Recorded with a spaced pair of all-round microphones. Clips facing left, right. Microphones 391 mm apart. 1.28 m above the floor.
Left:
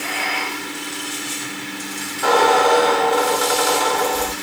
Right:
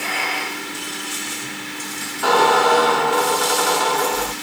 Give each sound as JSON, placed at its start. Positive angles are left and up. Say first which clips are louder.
{"t": 2.2, "sound": "a squeak", "louder": "left 1 dB", "side_deg": -25, "distance_m": 1.1}